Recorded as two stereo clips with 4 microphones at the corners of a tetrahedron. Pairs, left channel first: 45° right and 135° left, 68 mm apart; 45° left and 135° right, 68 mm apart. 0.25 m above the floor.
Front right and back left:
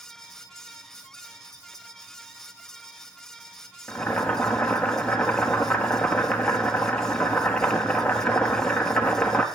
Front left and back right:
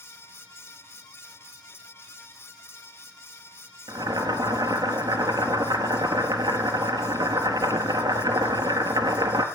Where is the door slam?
I don't hear a door slam.